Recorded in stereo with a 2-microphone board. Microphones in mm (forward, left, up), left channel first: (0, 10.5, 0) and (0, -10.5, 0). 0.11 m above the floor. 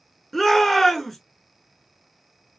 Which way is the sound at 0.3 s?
10° left (ahead or behind).